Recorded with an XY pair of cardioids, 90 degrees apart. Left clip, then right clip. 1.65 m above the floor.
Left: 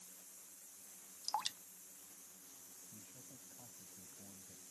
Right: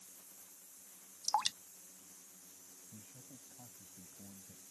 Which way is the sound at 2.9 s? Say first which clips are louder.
Right 1 dB; 40° right.